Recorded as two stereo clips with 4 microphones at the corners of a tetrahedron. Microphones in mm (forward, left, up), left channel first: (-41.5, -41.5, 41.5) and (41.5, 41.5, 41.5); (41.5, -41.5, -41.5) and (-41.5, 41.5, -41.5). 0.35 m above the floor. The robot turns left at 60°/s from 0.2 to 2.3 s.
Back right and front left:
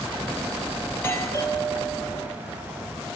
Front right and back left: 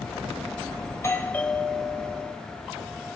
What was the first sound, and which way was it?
A doorbell, 75° right.